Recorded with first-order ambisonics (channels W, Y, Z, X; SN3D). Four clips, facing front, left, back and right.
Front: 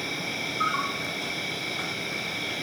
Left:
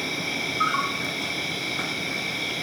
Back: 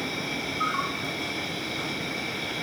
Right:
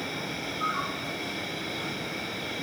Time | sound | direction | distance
0.0 | an insect | 75° left | 0.7 m